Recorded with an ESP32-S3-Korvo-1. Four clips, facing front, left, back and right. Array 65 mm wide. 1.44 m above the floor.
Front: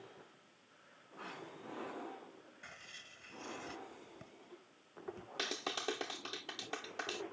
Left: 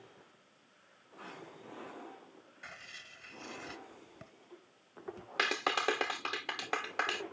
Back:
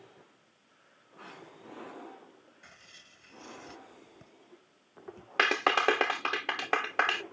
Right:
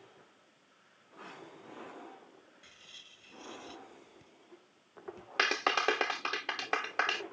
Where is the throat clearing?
I don't hear throat clearing.